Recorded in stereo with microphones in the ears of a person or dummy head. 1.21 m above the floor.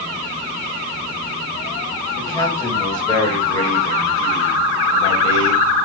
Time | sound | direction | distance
2.2 | a man speaking | 15° left (ahead or behind) | 6 m